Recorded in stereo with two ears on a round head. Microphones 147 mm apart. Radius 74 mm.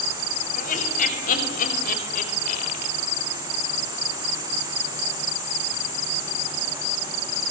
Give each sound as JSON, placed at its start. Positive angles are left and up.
{"t": 0.6, "sound": "laughter", "side_deg": 50, "distance_m": 7.0}